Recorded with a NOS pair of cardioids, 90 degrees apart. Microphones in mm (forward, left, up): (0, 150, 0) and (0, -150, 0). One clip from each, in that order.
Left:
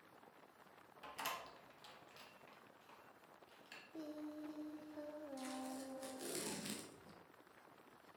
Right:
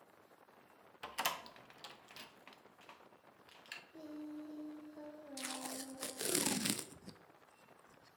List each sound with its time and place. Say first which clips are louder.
1.0 s a door slam: right 6 dB; 45° right, 0.7 m
3.9 s singing: left 2 dB; 10° left, 0.9 m
5.4 s tape being pulled: right 8 dB; 55° right, 0.5 m